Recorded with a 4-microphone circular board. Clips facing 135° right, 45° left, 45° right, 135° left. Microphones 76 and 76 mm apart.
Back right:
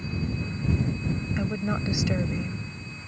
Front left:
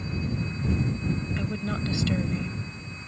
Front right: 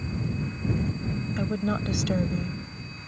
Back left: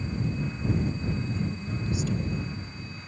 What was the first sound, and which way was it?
A woman speaking, 65° right.